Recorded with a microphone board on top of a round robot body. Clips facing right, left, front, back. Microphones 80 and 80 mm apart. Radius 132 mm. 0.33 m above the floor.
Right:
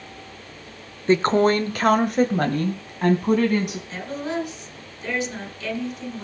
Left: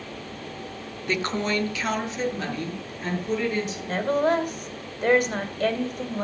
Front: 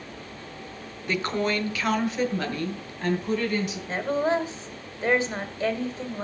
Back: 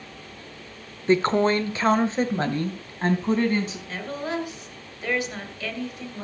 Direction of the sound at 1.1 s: 135° right.